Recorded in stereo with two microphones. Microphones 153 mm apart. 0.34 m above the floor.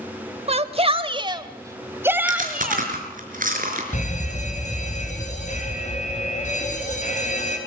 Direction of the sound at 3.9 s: 55° left (ahead or behind).